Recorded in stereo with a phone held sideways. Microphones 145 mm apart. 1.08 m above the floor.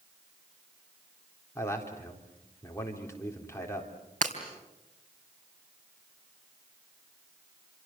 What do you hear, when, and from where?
1.6 s a man speaking: 20° left (ahead or behind), 4 m
4.2 s breaking glass: 60° right (ahead or behind), 3.5 m